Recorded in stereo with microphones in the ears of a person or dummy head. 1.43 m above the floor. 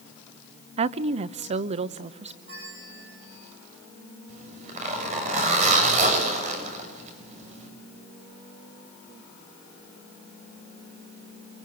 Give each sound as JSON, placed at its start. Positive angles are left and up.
{"t": 0.8, "sound": "a woman speaking", "side_deg": -40, "distance_m": 0.7}
{"t": 2.5, "sound": "a bell", "side_deg": -75, "distance_m": 7.0}
{"t": 4.3, "sound": "a zipper", "side_deg": -45, "distance_m": 7.0}